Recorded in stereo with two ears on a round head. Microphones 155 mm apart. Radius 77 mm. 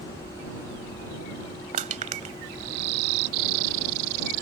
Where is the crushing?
45° right (ahead or behind).